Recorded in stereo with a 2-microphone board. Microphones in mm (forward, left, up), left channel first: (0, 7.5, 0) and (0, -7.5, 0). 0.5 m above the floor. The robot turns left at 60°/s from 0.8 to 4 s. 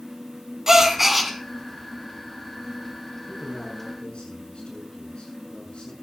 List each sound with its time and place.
0.7 s a gasp: 150° right, 2 m; by 1.3 s straight behind, 2 m
3.3 s a man speaking: 140° left, 8 m; by 5.9 s 100° left, 8 m